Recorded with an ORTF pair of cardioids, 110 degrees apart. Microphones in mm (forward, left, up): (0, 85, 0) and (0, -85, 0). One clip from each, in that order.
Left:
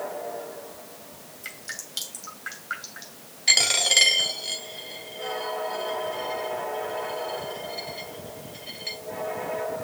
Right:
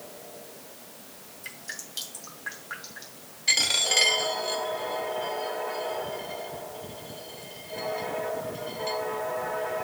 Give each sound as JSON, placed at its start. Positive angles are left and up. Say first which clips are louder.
{"t": 1.4, "sound": "dripping", "louder": "left 2 dB", "azimuth_deg": 35, "distance_m": 2.5}
{"t": 3.5, "sound": "a dropped coin", "louder": "left 3 dB", "azimuth_deg": 35, "distance_m": 2.5}